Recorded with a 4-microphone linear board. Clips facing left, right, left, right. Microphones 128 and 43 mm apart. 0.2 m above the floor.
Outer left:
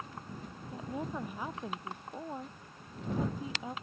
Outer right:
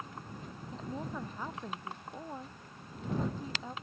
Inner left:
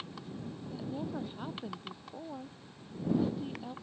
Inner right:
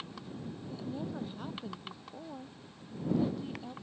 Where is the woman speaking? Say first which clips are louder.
Outer left 2 dB, inner left 1 dB; 10° left (ahead or behind).